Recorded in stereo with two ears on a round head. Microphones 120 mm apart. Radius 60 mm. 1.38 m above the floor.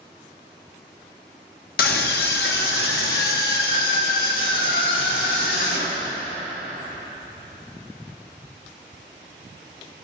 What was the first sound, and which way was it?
A scream, 80° left.